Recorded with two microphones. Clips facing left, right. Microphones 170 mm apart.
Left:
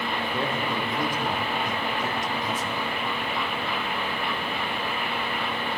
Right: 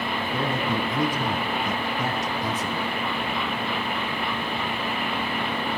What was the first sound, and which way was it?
A man speaking, 65° right (ahead or behind).